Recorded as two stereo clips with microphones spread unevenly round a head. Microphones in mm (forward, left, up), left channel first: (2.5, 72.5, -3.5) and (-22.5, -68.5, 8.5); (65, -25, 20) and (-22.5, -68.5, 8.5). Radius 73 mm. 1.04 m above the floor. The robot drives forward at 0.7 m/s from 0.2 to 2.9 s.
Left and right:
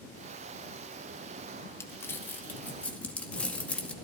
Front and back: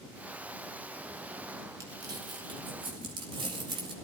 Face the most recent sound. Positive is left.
turn(degrees=160)